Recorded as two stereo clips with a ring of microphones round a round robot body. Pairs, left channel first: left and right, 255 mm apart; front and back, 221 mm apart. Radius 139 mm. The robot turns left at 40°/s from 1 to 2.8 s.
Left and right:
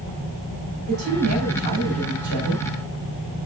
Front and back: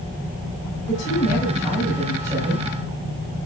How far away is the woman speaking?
About 4.5 m.